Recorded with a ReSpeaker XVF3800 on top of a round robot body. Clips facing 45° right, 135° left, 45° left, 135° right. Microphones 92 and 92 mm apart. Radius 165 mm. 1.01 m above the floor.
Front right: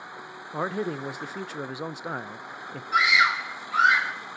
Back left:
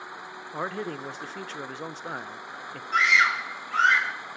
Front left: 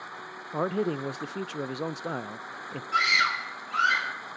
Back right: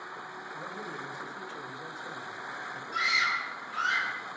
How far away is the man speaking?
About 0.6 m.